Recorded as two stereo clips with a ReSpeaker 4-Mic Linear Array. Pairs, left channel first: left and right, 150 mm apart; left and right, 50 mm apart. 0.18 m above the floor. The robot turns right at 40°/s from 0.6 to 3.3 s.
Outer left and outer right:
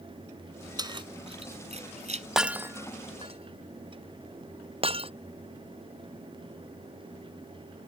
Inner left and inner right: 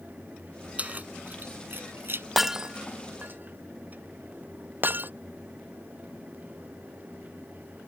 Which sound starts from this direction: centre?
Breaking glass, at 2.4 s.